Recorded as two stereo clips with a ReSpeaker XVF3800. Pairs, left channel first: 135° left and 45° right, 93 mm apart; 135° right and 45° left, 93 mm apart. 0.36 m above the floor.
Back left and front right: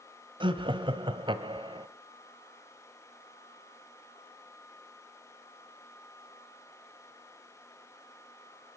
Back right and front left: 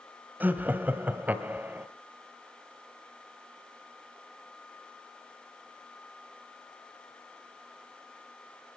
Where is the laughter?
25° right, 1.6 m.